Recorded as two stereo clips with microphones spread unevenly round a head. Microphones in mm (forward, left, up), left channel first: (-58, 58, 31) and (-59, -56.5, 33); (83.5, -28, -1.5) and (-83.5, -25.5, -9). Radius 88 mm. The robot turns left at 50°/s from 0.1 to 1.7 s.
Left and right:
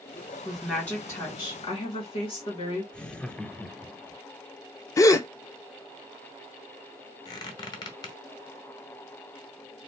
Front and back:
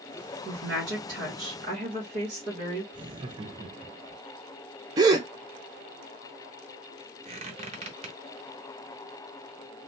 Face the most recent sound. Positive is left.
turn(degrees=135)